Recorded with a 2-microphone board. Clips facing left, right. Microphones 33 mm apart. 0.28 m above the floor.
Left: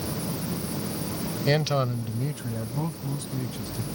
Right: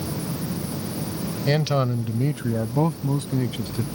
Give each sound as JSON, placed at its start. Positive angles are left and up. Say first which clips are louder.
{"t": 1.5, "sound": "a man speaking", "louder": "right 2 dB", "side_deg": 5}